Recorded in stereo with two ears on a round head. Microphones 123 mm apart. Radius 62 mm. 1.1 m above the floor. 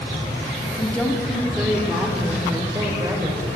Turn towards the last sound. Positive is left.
turn(degrees=-20)  # may be behind; listen again after turning